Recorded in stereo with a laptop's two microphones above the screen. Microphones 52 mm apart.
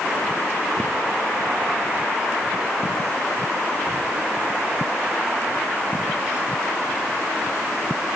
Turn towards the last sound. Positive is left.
No sound to turn to.